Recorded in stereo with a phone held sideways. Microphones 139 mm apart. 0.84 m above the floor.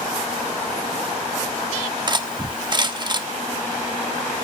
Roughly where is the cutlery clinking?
Right.